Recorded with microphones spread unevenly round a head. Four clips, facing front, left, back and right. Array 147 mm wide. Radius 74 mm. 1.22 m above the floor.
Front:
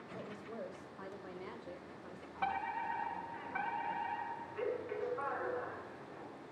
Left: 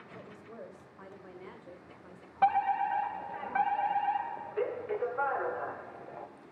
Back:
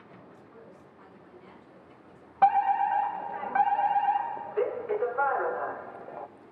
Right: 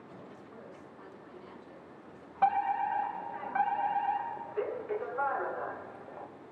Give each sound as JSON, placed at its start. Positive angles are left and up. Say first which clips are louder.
{"t": 0.1, "sound": "a woman speaking", "louder": "left 5 dB, front 9 dB", "azimuth_deg": 35, "distance_m": 7.5}
{"t": 2.4, "sound": "a fire alarm", "louder": "left 1 dB, back 16 dB", "azimuth_deg": 180, "distance_m": 3.0}